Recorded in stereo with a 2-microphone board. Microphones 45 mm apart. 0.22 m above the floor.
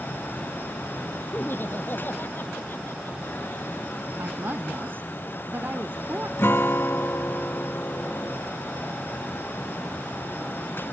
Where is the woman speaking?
55° right (ahead or behind).